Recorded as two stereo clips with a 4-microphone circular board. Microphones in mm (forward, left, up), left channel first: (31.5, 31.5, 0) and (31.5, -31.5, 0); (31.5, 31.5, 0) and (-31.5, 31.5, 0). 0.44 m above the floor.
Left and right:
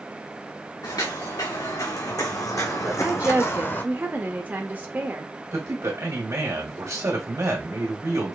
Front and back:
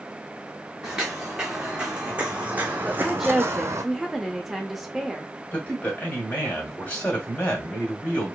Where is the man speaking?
60° right, 2.0 m.